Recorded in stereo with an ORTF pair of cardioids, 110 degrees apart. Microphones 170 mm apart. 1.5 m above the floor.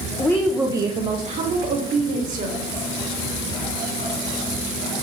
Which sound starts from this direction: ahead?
A woman speaking, at 0.2 s.